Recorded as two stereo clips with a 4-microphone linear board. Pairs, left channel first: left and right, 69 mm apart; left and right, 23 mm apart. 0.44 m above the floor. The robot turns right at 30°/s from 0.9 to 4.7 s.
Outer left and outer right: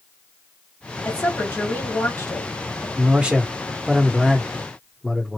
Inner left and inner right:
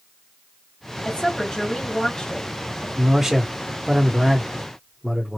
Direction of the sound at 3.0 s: 35° right.